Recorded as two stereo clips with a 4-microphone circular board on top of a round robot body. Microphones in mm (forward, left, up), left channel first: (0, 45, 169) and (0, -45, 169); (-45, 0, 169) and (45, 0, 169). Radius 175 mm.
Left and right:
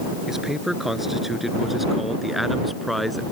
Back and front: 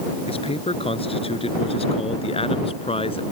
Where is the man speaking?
175° right; by 3.2 s straight behind.